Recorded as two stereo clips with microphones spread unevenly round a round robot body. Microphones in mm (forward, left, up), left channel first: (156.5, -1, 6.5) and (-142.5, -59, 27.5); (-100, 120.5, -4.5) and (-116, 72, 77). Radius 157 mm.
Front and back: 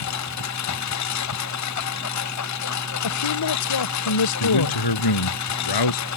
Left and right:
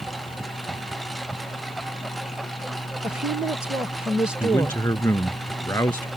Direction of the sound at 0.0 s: 20° right.